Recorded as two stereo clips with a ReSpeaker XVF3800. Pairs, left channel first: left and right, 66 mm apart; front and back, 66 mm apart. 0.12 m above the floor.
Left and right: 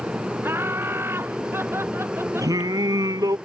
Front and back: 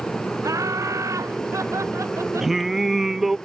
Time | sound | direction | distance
0.4 | laughter | 145° right | ?
2.4 | singing | 95° right | ?